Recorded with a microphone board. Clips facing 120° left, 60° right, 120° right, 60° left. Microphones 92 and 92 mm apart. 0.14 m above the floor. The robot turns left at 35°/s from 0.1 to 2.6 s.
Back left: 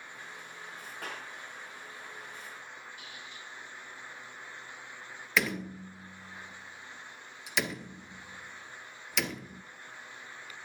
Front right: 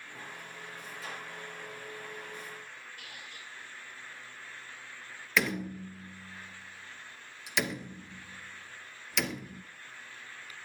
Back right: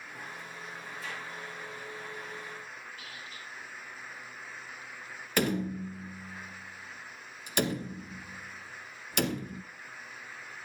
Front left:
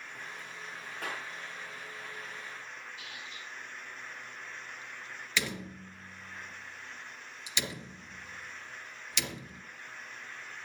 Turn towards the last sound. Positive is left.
turn(degrees=-150)